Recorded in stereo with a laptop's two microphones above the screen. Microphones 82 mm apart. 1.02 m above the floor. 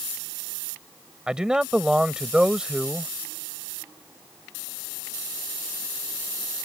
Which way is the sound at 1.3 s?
10° right (ahead or behind).